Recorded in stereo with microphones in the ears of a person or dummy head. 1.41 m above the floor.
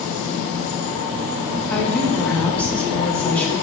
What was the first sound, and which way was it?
A woman speaking, 5° left (ahead or behind).